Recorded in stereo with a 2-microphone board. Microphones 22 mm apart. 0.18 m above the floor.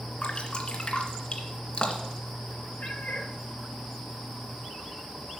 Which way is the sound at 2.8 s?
75° left (ahead or behind).